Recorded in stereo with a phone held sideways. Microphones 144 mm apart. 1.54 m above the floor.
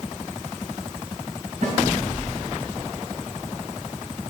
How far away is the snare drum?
About 2.5 m.